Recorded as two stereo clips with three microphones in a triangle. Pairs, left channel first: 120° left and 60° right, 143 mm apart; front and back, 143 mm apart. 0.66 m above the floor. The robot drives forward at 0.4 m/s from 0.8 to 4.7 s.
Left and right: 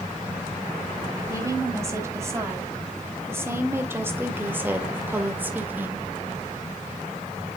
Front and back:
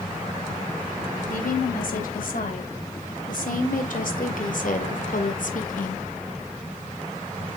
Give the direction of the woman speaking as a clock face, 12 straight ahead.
12 o'clock.